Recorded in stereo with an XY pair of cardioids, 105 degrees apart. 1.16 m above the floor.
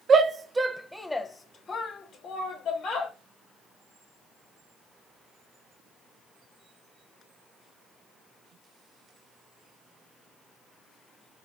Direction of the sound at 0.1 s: 40° right.